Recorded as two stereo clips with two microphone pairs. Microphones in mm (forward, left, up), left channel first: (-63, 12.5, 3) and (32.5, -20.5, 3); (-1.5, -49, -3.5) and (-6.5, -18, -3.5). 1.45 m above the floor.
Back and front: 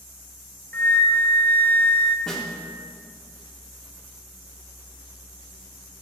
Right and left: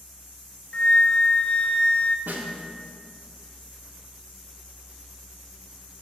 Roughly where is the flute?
Behind right.